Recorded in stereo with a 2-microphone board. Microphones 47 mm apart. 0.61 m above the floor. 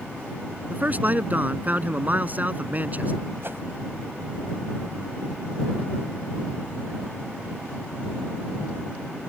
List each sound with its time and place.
0.7 s a man speaking: 35° right (ahead or behind)
3.4 s a whoosh: 50° right (ahead or behind)